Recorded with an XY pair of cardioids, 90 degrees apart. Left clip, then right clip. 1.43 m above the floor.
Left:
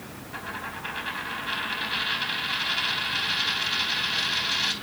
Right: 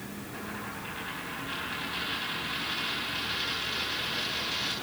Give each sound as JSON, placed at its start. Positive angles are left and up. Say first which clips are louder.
{"t": 0.3, "sound": "a dropped coin", "louder": "left 5 dB", "azimuth_deg": 70, "distance_m": 4.0}